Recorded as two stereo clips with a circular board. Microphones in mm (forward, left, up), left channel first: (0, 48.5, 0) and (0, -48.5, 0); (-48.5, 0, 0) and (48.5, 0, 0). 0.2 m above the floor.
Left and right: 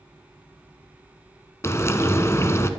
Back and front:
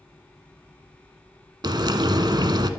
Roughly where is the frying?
Ahead left.